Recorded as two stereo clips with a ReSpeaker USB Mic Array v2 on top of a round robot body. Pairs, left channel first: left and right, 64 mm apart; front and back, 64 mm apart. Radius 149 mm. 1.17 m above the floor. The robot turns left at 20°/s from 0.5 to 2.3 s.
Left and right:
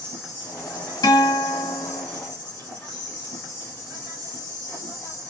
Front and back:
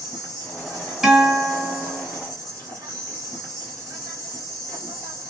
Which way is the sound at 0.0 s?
155° right.